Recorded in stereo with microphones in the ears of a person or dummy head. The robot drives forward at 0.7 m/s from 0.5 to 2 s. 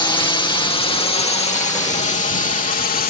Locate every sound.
0.0 s a drone: 20° left (ahead or behind); by 3.1 s 50° left (ahead or behind)